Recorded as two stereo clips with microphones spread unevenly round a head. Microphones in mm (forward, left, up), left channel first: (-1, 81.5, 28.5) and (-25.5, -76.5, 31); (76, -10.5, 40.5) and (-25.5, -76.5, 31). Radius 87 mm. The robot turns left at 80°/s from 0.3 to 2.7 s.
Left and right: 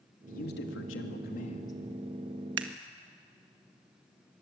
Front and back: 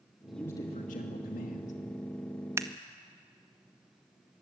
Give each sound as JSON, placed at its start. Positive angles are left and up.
{"t": 0.3, "sound": "a man speaking", "azimuth_deg": 125, "distance_m": 2.5}
{"t": 2.6, "sound": "scissors", "azimuth_deg": -80, "distance_m": 1.4}